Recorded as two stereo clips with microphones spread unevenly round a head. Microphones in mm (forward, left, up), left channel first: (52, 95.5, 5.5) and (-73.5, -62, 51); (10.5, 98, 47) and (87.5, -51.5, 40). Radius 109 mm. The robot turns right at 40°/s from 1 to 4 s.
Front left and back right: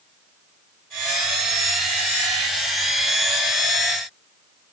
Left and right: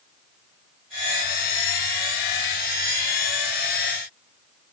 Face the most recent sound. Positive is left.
No sound to turn to.